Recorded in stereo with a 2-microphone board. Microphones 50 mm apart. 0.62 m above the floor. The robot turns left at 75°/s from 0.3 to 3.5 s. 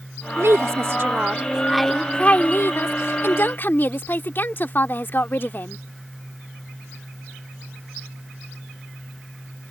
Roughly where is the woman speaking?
Right.